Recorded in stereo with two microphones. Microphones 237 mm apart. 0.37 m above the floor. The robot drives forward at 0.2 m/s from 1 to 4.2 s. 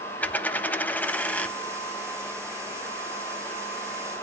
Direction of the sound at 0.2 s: 5° left (ahead or behind).